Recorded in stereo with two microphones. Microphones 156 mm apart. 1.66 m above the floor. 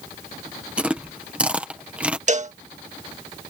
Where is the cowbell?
50° right (ahead or behind).